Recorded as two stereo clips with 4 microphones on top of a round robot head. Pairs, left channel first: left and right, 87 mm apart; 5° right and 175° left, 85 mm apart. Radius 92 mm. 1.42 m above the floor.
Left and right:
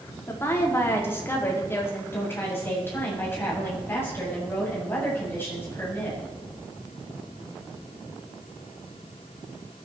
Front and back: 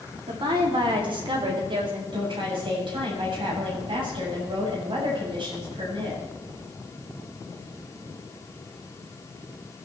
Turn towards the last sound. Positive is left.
turn(degrees=155)